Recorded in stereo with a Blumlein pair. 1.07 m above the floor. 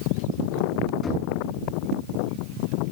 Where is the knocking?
20° left, 7 m.